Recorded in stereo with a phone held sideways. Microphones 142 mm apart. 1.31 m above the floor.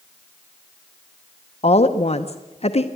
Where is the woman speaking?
45° left (ahead or behind), 0.7 m.